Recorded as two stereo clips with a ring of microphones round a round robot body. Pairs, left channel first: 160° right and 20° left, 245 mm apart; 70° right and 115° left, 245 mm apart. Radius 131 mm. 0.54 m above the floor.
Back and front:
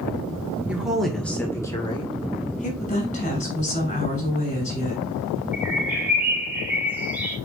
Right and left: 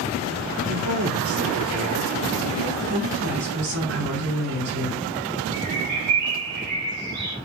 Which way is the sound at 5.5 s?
105° left.